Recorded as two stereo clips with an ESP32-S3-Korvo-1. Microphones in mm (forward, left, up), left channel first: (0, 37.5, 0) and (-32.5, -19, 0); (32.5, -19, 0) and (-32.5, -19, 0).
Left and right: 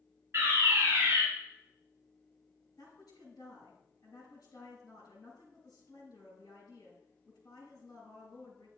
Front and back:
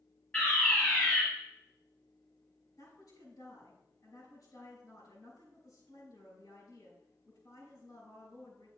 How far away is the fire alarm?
About 4.5 m.